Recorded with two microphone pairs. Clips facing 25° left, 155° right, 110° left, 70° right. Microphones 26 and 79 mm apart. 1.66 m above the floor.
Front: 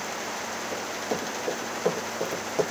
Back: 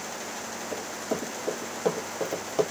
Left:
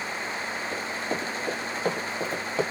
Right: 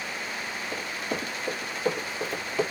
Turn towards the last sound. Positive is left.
turn(degrees=130)